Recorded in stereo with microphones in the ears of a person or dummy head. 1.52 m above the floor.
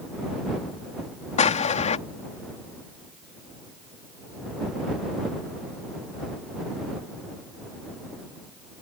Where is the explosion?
45° left (ahead or behind).